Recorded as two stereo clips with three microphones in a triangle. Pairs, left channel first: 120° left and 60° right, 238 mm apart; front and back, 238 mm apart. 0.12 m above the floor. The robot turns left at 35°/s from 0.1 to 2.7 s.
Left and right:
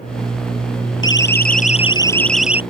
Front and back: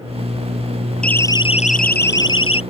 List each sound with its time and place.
1.0 s a siren: 85° left; by 2.6 s 20° left